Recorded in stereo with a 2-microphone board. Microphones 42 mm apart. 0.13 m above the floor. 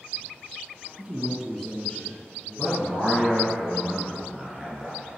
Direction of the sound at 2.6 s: 20° right (ahead or behind).